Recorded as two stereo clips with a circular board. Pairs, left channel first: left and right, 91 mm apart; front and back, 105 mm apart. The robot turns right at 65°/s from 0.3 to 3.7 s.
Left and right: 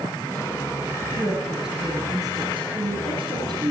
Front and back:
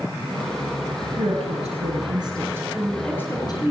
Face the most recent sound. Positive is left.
turn(degrees=-40)